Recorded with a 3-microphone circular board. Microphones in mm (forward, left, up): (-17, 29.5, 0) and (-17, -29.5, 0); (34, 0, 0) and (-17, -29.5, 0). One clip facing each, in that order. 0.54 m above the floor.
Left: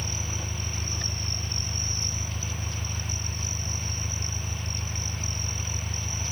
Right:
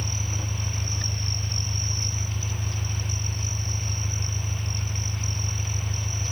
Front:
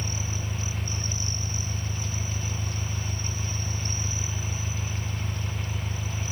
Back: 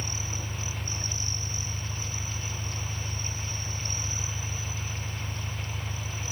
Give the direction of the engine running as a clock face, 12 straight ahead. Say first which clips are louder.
Right 2 dB, front 2 dB; 11 o'clock.